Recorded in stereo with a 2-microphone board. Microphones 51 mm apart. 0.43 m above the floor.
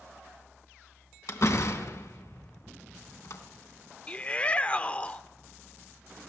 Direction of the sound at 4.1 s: 25° left (ahead or behind).